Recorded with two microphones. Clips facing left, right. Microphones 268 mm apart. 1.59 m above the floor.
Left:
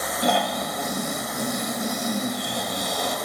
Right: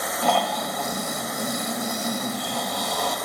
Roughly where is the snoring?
Centre.